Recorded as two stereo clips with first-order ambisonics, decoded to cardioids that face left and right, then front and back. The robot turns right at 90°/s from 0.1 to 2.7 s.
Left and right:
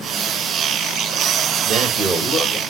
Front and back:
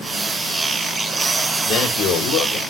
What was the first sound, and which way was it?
A man speaking, 55° right.